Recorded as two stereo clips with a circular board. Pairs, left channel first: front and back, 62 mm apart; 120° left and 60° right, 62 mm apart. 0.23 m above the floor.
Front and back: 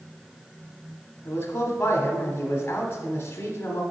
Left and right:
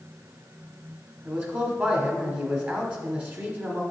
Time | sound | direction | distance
1.2 | a man speaking | 25° right | 1.2 m